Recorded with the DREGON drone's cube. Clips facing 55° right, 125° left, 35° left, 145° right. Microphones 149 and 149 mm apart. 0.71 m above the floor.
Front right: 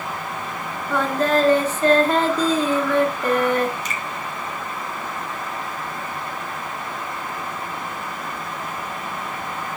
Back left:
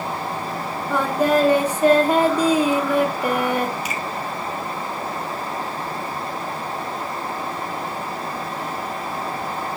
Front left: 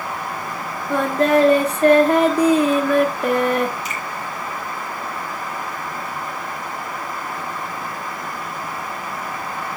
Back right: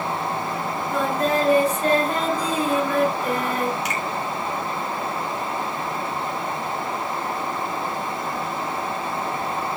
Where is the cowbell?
I don't hear a cowbell.